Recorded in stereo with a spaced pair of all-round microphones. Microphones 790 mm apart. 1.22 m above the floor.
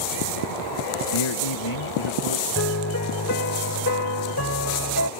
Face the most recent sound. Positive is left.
turn(degrees=20)  # may be behind; listen again after turning